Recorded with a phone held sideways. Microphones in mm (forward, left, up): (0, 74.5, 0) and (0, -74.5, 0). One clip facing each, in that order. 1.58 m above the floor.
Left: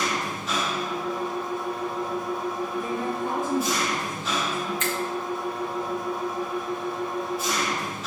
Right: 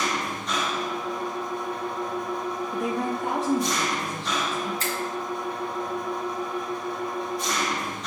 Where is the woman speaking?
85° right, 0.9 m.